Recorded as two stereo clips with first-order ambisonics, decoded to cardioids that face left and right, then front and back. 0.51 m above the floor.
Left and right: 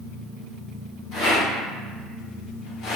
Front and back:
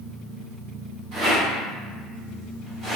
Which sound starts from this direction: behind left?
A rattle, at 1.1 s.